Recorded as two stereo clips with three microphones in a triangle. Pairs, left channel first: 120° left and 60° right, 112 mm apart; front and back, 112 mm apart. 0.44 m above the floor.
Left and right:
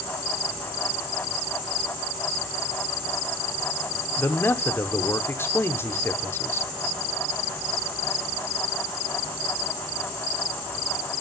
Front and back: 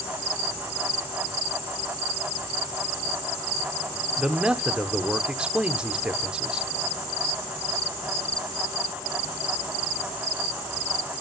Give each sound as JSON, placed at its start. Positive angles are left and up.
{"t": 4.2, "sound": "a man speaking", "azimuth_deg": 110, "distance_m": 0.8}